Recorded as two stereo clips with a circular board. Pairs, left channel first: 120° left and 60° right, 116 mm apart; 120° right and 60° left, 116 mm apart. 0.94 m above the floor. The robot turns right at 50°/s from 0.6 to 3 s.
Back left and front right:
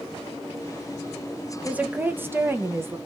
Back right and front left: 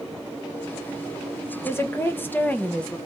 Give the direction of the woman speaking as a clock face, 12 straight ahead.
4 o'clock.